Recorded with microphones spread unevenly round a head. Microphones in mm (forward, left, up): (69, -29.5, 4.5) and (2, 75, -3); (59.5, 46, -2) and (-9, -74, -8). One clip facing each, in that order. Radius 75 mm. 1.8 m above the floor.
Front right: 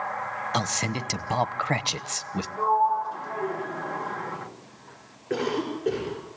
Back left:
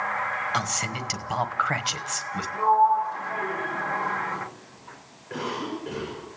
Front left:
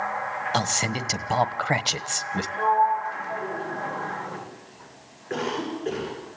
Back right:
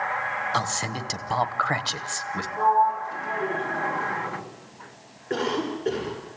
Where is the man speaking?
5° right, 1.1 m.